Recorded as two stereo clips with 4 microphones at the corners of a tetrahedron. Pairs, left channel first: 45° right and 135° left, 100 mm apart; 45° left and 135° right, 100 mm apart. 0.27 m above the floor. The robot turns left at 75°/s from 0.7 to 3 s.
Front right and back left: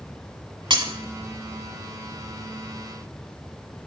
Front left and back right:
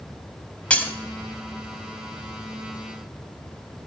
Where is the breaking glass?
120° left, 1.1 m; by 0.9 s 105° left, 1.1 m.